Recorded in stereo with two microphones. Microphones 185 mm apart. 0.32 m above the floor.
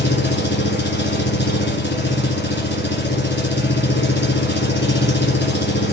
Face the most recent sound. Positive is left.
turn(degrees=80)